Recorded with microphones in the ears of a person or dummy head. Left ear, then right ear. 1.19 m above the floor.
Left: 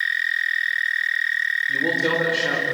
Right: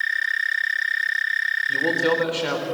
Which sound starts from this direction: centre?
A man speaking, at 1.7 s.